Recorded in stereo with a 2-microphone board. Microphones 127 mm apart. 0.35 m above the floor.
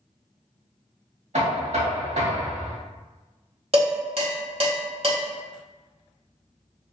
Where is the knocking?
65° right (ahead or behind), 1.0 m.